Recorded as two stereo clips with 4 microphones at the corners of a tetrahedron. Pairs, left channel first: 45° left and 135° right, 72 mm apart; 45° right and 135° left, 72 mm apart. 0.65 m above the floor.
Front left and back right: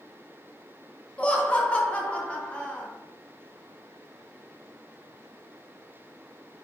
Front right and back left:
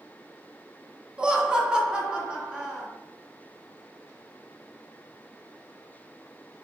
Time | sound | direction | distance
1.2 | laughter | 90° left | 0.5 m